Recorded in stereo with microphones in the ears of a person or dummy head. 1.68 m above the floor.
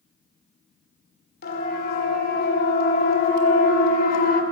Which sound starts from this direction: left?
A siren, at 1.4 s.